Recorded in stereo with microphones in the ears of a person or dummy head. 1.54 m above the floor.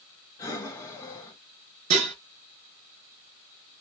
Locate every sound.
0.4 s breathing: 15° left (ahead or behind), 1.2 m
1.9 s dishes clattering: 35° right (ahead or behind), 2 m